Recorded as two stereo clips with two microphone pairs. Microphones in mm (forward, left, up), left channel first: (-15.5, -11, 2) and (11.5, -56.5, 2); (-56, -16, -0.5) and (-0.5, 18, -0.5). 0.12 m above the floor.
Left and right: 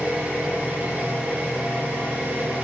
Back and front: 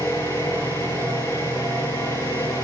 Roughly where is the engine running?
Behind right.